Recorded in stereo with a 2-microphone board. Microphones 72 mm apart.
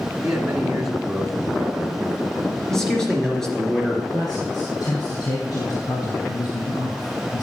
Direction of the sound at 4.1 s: 60° left (ahead or behind).